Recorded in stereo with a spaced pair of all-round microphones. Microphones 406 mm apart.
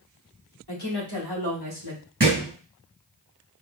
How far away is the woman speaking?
About 3 m.